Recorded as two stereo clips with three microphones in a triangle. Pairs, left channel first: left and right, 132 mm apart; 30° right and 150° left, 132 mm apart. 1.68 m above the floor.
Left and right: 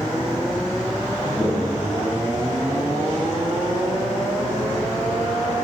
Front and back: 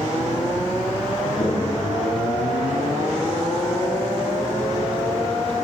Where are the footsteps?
25° right, 2.5 m; by 3.0 s 35° left, 3 m.